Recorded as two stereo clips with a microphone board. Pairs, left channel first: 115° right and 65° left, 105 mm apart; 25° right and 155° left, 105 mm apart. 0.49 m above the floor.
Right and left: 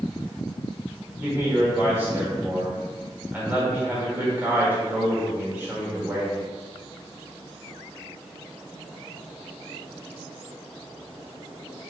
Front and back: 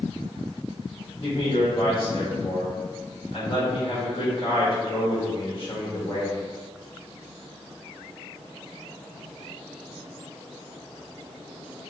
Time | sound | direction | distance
1.2 | a man speaking | straight ahead | 1.2 m